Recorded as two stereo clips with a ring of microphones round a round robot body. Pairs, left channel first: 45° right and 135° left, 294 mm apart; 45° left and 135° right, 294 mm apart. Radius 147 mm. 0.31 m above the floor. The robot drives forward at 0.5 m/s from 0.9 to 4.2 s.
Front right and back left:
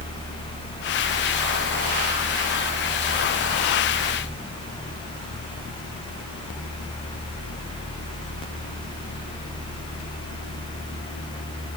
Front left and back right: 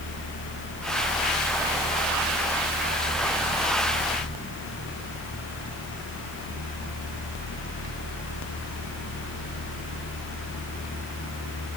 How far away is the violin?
No violin in this recording.